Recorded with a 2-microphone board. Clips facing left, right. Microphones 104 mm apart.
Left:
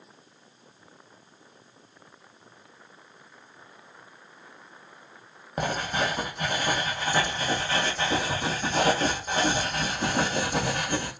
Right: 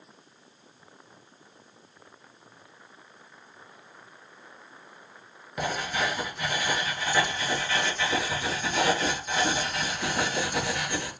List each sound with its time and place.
5.6 s writing: 40° left (ahead or behind), 1.3 m